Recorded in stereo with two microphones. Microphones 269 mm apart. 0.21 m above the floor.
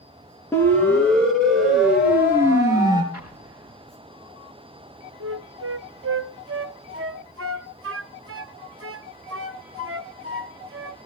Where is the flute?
55° right (ahead or behind), 0.7 m.